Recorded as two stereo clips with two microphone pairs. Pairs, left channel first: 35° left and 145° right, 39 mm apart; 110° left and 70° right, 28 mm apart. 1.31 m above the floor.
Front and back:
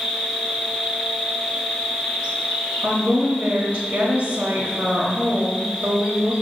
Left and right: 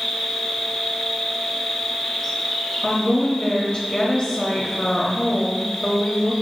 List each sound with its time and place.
0.0 s an insect: straight behind, 1.3 m
2.8 s a woman speaking: straight behind, 0.7 m